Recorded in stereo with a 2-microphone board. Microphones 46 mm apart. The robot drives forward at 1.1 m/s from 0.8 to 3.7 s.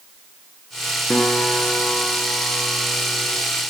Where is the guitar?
35° left (ahead or behind), 2.5 m; by 3.3 s 80° left, 1.5 m.